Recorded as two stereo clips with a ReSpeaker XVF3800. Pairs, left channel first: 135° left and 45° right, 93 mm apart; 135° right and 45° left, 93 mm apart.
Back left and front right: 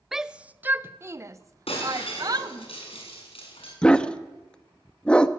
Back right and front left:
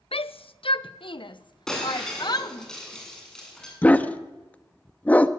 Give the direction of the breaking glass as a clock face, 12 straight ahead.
7 o'clock.